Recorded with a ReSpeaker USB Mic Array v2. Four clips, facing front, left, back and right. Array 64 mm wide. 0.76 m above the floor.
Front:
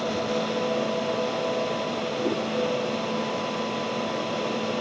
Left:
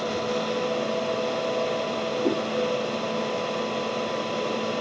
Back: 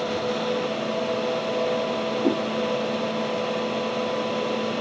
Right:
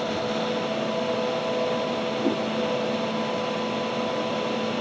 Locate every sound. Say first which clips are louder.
2.2 s a whoosh: left 1 dB, back 4 dB; 160° right, 5.5 m